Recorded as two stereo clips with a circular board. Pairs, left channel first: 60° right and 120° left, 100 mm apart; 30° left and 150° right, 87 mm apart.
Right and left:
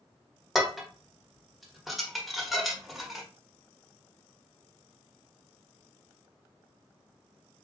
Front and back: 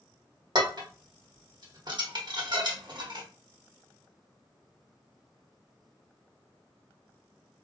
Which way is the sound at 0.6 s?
150° right.